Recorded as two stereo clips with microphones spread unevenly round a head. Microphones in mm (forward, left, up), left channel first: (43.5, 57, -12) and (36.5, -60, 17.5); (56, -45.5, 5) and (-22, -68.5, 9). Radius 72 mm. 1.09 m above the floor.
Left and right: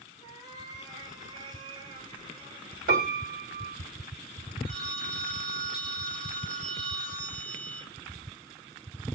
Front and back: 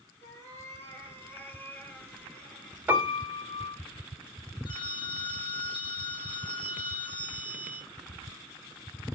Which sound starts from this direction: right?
A piano, at 2.9 s.